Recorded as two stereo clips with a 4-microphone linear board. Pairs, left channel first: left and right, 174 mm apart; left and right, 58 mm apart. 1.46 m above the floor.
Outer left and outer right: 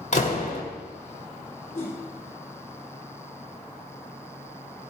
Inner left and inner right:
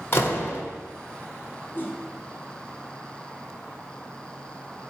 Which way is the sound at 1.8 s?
50° left (ahead or behind).